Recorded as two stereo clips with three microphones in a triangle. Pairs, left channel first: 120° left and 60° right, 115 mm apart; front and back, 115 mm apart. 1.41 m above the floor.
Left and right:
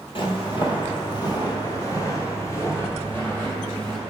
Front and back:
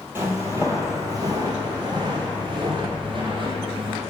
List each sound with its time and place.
0.1 s footsteps: 120° left, 2.0 m; by 4.0 s 165° right, 2.5 m